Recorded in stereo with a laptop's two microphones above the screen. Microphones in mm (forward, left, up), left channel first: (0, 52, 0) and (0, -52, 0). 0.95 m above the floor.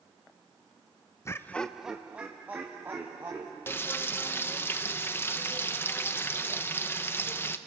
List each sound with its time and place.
1.2 s laughter: 25° left (ahead or behind), 0.6 m; by 3.6 s 20° right (ahead or behind), 3 m
3.7 s frying: 20° left (ahead or behind), 0.6 m